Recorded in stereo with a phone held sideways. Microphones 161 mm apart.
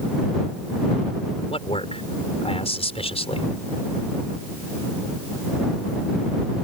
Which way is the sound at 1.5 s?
40° left (ahead or behind).